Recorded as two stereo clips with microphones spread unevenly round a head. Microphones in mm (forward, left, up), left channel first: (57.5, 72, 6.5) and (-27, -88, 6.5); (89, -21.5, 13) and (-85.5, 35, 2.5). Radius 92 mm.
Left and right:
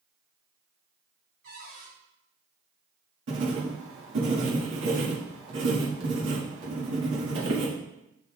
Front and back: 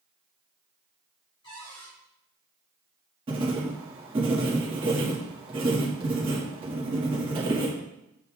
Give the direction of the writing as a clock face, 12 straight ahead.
5 o'clock.